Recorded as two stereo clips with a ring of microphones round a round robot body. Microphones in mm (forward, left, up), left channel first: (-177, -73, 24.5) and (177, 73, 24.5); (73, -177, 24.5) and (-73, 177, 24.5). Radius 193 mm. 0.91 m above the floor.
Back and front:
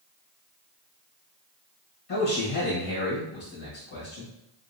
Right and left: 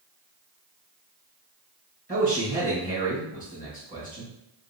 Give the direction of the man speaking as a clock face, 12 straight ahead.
6 o'clock.